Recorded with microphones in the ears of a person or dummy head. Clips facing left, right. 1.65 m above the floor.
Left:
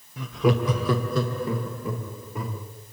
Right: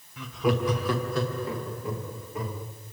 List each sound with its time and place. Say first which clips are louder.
0.2 s laughter: left 3 dB; 35° left (ahead or behind), 0.7 m; by 2.6 s 75° left (ahead or behind), 3 m